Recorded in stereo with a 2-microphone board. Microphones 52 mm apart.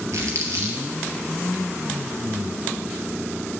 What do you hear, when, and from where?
0.1 s crumpling: 70° right (ahead or behind), 2.5 m